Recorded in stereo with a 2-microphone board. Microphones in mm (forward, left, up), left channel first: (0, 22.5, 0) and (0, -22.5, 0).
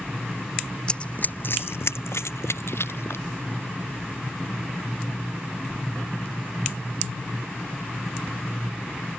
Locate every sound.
0.9 s running footsteps: 20° left (ahead or behind); by 3.2 s 70° left (ahead or behind)